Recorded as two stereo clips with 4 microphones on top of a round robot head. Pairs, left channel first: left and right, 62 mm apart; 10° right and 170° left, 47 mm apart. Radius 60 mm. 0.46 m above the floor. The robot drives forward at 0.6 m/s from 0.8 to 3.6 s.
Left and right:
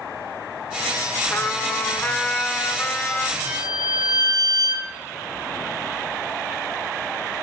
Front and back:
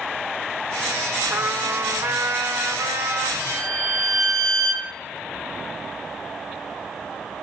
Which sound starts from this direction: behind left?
A trumpet, at 1.3 s.